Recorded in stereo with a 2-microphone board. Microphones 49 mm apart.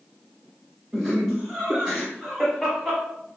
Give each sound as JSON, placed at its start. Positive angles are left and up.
{"t": 0.9, "sound": "laughter", "side_deg": 10, "distance_m": 1.7}